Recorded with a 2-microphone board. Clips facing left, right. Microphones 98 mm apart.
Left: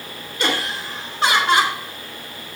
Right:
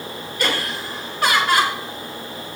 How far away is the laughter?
About 2.5 m.